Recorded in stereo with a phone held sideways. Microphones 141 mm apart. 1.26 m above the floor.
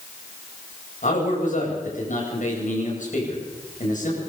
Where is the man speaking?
65° left (ahead or behind), 8.5 m.